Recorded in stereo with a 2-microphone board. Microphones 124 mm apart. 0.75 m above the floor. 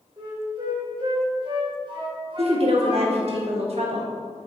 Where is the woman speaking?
55° right (ahead or behind), 1.3 m.